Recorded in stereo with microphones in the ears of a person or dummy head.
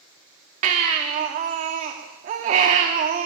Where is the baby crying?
45° right (ahead or behind), 1.7 m.